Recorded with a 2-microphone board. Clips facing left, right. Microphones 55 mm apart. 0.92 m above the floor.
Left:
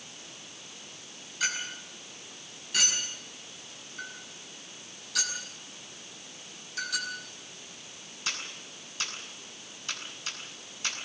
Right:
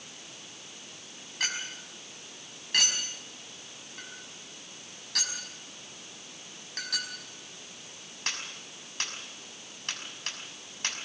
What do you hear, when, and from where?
1.4 s a clink: 65° right (ahead or behind), 5.5 m